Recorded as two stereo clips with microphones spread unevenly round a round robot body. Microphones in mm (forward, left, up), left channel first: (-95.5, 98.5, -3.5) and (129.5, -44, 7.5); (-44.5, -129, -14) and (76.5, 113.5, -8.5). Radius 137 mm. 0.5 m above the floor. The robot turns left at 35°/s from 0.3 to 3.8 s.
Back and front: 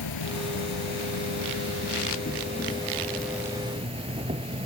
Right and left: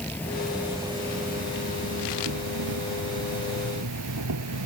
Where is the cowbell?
I don't hear a cowbell.